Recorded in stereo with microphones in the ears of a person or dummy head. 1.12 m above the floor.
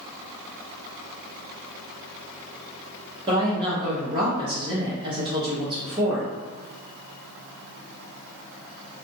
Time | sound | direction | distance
3.3 | a woman speaking | 25° right (ahead or behind) | 0.7 m